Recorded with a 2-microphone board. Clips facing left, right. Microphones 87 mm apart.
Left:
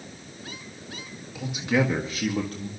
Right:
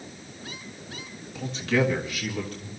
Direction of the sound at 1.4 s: 5° left (ahead or behind).